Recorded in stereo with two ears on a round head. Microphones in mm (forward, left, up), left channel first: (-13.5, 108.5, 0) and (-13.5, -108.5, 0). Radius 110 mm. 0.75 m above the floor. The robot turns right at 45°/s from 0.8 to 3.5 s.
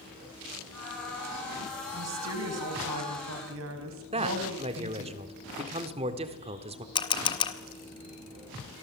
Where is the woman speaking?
130° right, 4.5 m; by 5.1 s 60° right, 4.5 m.